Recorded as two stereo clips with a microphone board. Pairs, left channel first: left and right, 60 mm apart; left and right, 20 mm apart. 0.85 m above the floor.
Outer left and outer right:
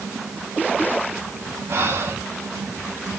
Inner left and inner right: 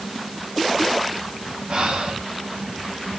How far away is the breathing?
About 2.5 m.